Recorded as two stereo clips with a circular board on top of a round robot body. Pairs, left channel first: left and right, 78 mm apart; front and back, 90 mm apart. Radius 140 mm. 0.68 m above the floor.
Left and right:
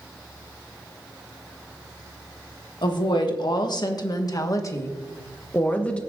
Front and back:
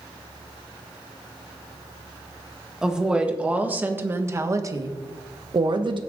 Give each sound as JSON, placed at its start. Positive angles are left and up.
{"t": 2.8, "sound": "a woman speaking", "azimuth_deg": 95, "distance_m": 1.8}